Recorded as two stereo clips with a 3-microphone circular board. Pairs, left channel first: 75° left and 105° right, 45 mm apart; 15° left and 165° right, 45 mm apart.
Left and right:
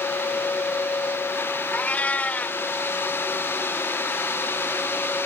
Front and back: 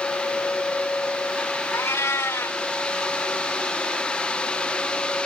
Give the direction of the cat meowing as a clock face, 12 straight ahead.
11 o'clock.